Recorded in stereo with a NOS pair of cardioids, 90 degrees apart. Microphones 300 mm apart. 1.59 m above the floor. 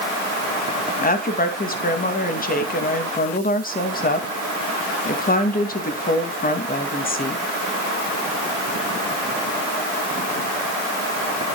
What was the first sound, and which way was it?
A woman speaking, 30° left.